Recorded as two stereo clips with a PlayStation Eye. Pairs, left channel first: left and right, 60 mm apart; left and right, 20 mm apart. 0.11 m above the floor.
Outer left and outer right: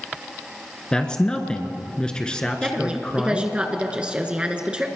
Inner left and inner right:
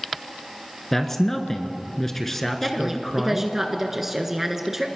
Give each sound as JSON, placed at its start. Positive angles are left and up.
{"t": 0.9, "sound": "a man speaking", "side_deg": 15, "distance_m": 1.2}
{"t": 2.6, "sound": "a woman speaking", "side_deg": -20, "distance_m": 1.3}